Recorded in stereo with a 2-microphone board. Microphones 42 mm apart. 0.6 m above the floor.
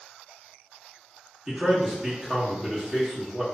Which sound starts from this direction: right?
A man speaking, at 1.5 s.